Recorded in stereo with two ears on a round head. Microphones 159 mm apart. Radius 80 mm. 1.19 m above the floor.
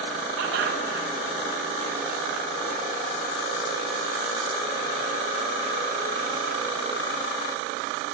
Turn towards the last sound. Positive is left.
turn(degrees=-80)